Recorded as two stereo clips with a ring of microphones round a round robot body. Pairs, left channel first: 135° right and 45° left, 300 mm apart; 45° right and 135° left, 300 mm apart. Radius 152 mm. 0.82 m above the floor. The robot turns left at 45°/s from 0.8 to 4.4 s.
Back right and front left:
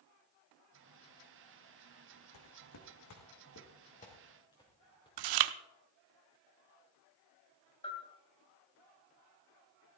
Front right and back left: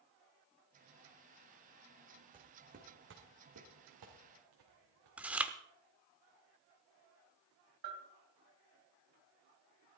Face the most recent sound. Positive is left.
turn(degrees=150)